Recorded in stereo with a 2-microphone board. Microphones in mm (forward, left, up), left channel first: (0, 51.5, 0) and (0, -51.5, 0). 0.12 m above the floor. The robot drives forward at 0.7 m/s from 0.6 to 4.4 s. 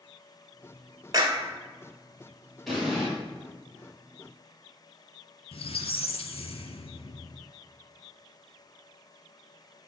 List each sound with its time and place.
1.1 s a clap: 35° right (ahead or behind), 1.2 m
2.7 s an explosion: 5° left (ahead or behind), 3 m
5.5 s a squeak: 65° left (ahead or behind), 0.5 m